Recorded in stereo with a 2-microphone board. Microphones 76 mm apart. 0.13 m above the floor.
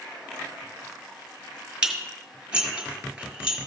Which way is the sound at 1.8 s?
15° right (ahead or behind).